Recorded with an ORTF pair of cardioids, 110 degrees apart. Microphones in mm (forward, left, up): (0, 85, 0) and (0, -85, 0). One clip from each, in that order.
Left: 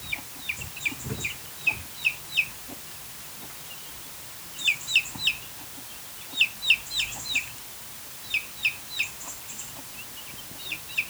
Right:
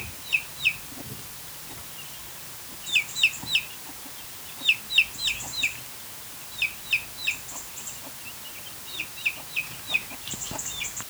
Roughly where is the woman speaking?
I don't hear a woman speaking.